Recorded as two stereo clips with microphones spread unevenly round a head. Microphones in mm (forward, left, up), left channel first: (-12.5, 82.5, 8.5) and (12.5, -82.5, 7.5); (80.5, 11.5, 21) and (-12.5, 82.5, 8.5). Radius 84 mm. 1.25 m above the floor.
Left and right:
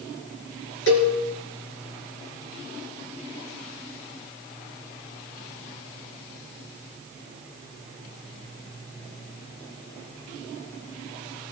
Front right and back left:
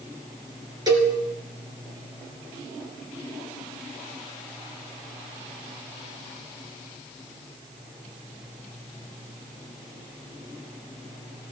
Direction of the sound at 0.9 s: 85° left.